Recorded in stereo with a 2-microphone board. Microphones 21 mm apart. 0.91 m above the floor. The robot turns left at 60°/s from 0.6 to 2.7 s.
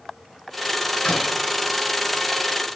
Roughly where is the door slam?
Left.